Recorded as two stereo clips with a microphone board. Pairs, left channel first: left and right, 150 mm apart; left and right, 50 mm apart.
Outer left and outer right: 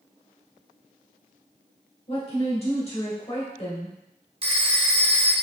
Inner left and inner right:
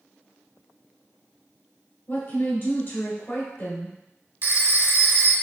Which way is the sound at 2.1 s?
40° left (ahead or behind).